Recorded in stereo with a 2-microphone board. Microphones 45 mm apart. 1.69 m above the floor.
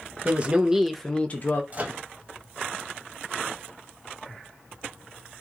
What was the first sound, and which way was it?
A woman speaking, 30° right (ahead or behind).